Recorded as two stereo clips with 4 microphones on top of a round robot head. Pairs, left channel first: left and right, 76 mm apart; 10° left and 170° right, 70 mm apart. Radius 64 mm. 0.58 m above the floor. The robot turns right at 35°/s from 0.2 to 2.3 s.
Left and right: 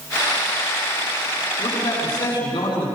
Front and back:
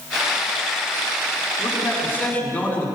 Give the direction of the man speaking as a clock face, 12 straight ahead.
10 o'clock.